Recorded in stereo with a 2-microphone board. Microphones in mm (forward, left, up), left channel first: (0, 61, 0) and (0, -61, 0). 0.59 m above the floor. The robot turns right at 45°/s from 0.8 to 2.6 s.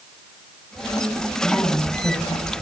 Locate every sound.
1.4 s a woman speaking: straight ahead, 4 m; by 2.6 s 55° left, 4 m